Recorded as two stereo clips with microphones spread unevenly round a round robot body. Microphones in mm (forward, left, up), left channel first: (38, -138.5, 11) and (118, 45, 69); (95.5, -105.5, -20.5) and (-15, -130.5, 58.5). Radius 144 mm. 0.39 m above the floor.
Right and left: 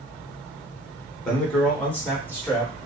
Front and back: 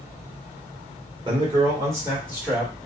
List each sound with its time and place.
1.2 s a man speaking: 85° right, 1.3 m; by 2.7 s 50° right, 1.8 m